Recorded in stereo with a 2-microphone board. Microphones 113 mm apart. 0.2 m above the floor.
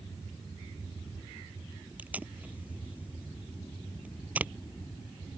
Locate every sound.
2.0 s tape being pulled: 15° right (ahead or behind)